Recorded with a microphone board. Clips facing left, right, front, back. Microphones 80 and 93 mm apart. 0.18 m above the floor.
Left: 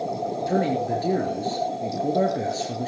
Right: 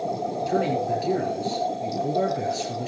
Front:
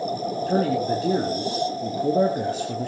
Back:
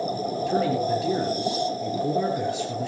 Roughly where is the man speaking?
Ahead left.